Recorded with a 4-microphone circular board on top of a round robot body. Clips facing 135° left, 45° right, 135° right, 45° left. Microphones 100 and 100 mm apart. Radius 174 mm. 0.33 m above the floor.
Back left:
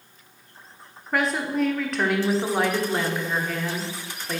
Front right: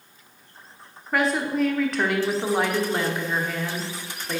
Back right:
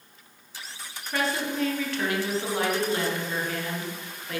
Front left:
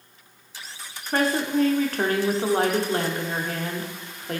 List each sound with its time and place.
1.1 s a woman speaking: 45° left, 1.3 m